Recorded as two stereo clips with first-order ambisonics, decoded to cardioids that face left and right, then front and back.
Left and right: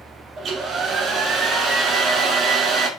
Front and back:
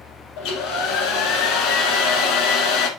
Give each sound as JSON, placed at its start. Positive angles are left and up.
{"t": 0.4, "sound": "a hair dryer", "azimuth_deg": -25, "distance_m": 1.5}